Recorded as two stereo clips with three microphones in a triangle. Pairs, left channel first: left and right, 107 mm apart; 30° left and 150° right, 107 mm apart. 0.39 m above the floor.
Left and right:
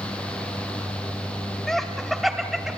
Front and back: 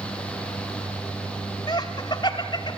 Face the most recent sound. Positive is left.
turn(degrees=-5)